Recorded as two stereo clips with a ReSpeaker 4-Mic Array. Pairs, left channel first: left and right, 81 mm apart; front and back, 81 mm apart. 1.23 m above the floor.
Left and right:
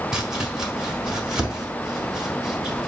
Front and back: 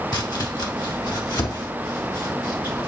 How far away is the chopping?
About 1.6 m.